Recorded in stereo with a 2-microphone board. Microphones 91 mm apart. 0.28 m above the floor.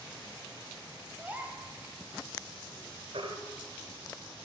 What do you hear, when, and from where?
1.2 s a gasp: 15° right (ahead or behind), 1.4 m
3.1 s a baby crying: 80° right, 1.5 m